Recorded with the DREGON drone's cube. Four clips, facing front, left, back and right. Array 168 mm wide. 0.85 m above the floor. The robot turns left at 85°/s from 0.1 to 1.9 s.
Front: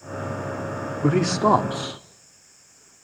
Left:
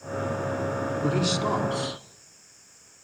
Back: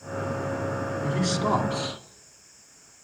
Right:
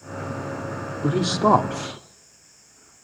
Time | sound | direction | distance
1.0 | a man speaking | 10° right | 1.5 m